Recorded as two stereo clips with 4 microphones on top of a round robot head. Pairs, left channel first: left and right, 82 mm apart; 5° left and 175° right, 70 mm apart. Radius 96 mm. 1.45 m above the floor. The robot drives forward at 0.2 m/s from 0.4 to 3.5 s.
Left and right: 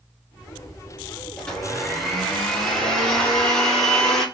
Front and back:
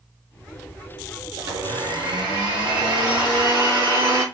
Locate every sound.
1.4 s a blender: 170° left, 1.3 m; by 4.2 s 175° left, 1.7 m